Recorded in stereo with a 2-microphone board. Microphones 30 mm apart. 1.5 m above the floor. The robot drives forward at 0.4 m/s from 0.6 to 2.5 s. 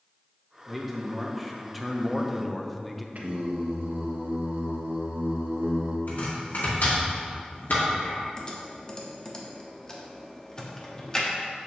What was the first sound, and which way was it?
A man speaking, centre (ahead or behind).